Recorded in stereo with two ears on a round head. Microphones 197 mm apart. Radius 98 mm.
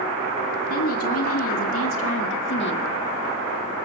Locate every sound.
0.7 s a woman speaking: 70° left (ahead or behind), 2.5 m; by 2.9 s 50° left (ahead or behind), 1.8 m